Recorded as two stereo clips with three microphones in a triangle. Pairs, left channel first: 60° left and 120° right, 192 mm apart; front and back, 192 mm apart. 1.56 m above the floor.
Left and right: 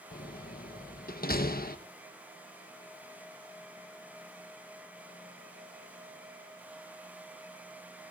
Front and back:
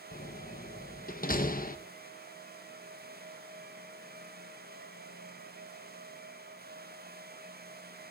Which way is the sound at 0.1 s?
35° left.